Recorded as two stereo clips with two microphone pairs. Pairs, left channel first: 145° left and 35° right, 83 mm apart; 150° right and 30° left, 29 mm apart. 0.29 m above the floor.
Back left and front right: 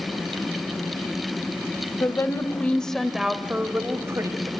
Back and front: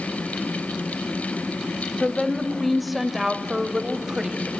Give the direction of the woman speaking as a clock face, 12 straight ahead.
7 o'clock.